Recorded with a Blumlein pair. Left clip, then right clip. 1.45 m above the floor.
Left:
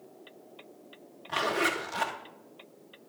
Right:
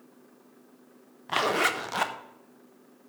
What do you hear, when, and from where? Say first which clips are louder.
1.3 s a zipper: right 3 dB; 25° right, 1.3 m